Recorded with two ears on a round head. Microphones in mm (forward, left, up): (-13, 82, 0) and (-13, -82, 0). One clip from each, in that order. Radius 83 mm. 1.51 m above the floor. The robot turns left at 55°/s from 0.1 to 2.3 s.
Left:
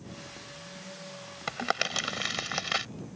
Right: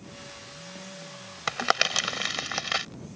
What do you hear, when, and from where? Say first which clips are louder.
1.5 s crumpling: right 5 dB; 50° right (ahead or behind); by 2.9 s 10° right (ahead or behind)